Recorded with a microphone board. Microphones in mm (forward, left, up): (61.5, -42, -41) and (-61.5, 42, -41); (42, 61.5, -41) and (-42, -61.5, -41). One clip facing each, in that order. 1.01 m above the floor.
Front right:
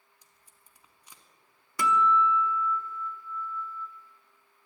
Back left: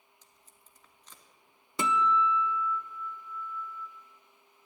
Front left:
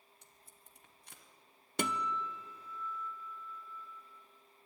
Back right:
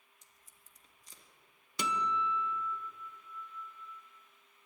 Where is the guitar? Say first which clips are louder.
Front right 3 dB, back right 2 dB; 80° left, 0.7 m.